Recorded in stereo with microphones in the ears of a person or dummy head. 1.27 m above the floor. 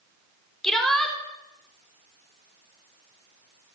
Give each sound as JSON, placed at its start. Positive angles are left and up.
{"t": 0.6, "sound": "a shout", "side_deg": 15, "distance_m": 3.0}